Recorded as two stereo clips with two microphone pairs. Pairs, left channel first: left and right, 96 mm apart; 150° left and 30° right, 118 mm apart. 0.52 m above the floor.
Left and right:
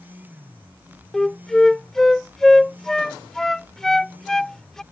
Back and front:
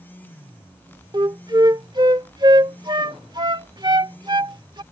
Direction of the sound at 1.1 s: 5° left.